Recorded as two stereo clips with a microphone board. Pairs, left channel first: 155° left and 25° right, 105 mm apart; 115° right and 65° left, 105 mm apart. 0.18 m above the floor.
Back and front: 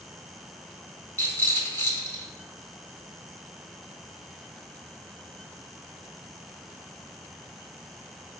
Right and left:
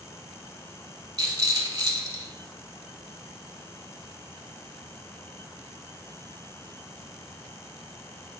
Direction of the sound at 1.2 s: 100° left.